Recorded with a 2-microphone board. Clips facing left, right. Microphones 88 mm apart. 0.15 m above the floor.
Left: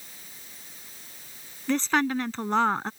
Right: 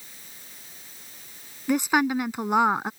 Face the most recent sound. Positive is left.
turn(degrees=-15)  # may be behind; listen again after turning